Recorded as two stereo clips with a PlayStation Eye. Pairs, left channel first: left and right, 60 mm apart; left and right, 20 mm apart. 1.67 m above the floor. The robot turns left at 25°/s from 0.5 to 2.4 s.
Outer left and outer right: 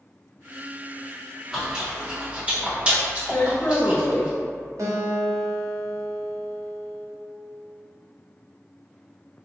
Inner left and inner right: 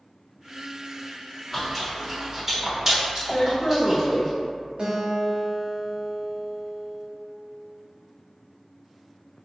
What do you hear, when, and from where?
1.5 s chewing: 5° right (ahead or behind), 1.0 m; by 4.3 s 20° right (ahead or behind), 1.0 m
3.3 s a woman speaking: 35° left (ahead or behind), 0.7 m
4.8 s a guitar: 60° right (ahead or behind), 0.8 m